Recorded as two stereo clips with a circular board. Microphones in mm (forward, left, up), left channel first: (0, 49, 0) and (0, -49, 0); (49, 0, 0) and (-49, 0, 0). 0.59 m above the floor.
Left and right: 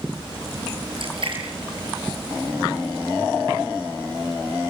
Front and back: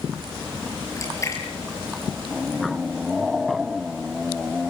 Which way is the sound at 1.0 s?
60° right.